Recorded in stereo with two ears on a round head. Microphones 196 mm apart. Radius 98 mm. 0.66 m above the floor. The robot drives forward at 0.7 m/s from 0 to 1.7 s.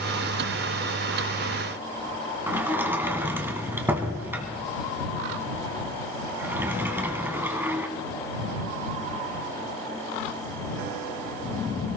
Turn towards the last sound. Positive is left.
turn(degrees=-10)  # may be behind; listen again after turning